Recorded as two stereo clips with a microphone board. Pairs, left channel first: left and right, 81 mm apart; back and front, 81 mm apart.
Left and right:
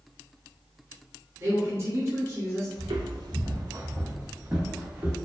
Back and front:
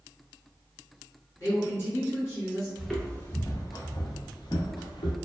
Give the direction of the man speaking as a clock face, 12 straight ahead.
5 o'clock.